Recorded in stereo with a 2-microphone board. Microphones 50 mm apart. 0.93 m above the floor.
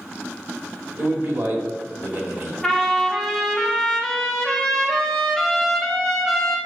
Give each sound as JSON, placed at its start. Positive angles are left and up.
{"t": 1.0, "sound": "a man speaking", "side_deg": -60, "distance_m": 1.7}
{"t": 2.6, "sound": "a trumpet", "side_deg": 5, "distance_m": 1.1}